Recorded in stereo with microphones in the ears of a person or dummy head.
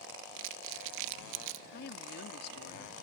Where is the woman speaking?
60° left (ahead or behind).